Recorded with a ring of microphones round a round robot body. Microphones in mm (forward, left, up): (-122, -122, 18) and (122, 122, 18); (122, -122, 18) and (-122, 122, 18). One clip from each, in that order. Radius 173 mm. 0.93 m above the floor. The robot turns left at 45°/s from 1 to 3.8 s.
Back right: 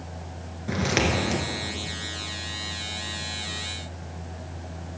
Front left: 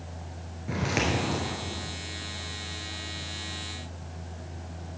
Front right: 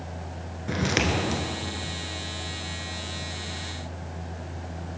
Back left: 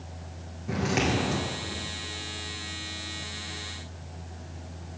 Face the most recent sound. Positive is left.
turn(degrees=160)